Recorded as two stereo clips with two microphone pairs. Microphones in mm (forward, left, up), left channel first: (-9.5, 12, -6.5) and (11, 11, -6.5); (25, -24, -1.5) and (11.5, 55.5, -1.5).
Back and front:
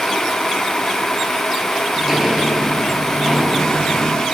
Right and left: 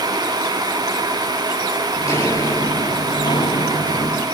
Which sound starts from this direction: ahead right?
Footsteps, at 2.0 s.